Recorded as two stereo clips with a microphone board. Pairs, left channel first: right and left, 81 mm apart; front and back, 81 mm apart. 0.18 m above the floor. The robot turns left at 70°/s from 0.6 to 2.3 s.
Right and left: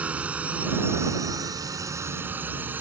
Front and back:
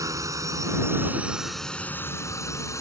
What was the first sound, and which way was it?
A drone, 155° left.